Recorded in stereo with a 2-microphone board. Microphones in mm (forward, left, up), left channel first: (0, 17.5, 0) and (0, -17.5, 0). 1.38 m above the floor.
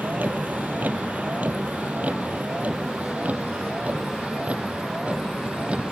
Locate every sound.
0.0 s a vehicle: 60° right (ahead or behind); by 5.9 s 35° right (ahead or behind)